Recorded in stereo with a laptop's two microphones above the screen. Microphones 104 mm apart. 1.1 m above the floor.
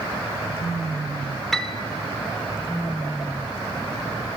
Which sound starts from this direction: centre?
A piano, at 1.5 s.